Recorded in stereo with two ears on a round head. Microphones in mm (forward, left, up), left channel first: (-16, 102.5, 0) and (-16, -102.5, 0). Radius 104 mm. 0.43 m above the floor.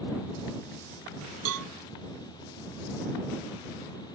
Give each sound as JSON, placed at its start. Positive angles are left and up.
{"t": 1.4, "sound": "a cowbell", "side_deg": -70}